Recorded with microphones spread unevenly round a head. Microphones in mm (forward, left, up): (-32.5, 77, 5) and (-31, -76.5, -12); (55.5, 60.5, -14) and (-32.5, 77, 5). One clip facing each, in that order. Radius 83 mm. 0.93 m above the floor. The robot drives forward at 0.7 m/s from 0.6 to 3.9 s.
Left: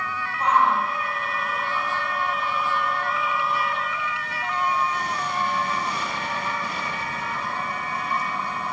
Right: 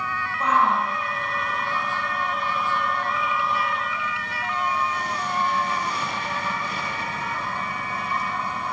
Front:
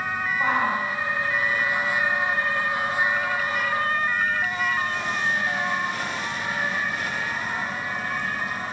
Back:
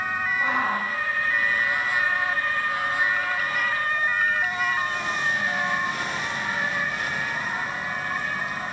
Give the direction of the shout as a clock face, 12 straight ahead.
3 o'clock.